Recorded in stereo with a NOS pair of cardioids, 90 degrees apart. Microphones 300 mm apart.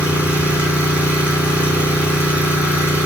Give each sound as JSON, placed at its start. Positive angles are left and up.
{"t": 0.0, "sound": "an engine running", "azimuth_deg": -5, "distance_m": 4.5}